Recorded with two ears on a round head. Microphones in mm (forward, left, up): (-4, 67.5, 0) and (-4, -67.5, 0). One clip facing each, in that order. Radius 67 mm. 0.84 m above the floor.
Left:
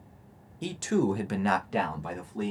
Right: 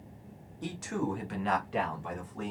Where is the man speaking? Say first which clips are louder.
Left 7 dB; 25° left (ahead or behind), 0.6 m; by 2.5 s 40° left (ahead or behind), 1.0 m.